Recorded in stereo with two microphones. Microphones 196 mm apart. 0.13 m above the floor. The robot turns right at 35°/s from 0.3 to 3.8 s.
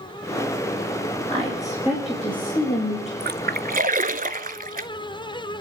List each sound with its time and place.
1.3 s a woman speaking: 30° right, 9 m; by 3.1 s 35° left, 9 m
3.2 s a splash: 55° right (ahead or behind), 0.6 m; by 4.9 s 45° right (ahead or behind), 0.6 m